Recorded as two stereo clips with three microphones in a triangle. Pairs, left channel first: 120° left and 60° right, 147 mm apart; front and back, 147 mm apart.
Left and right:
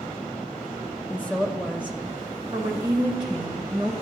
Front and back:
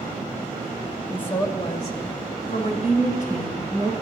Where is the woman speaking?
65° left, 1.2 m; by 3.9 s 10° right, 3 m.